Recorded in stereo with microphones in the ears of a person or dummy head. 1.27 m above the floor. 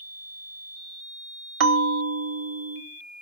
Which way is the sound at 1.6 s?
65° right (ahead or behind).